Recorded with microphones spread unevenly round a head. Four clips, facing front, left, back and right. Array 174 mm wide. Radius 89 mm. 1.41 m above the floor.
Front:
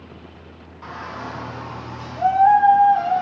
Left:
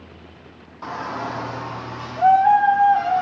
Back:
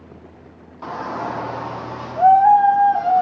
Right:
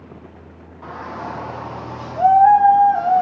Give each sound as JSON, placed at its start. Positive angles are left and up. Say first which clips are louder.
{"t": 0.8, "sound": "a shout", "louder": "left 2 dB, back 6 dB", "azimuth_deg": 175, "distance_m": 1.3}